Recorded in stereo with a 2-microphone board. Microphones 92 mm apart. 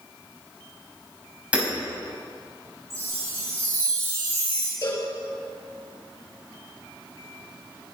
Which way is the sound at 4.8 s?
45° left (ahead or behind).